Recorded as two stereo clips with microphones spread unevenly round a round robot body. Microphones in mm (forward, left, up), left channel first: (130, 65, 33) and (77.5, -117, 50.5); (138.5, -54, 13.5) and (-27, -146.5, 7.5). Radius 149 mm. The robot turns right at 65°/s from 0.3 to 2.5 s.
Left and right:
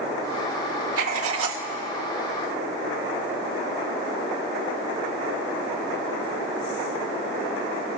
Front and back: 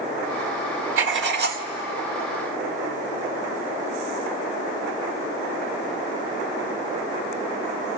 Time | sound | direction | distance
1.0 | writing | 145° right | 1.3 m